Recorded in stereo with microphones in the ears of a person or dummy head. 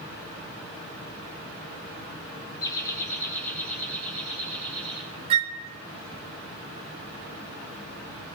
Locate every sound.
2.6 s laughter: 25° left (ahead or behind), 0.9 m; by 5.0 s 15° left (ahead or behind), 3.5 m
5.3 s a flute: 35° right (ahead or behind), 0.7 m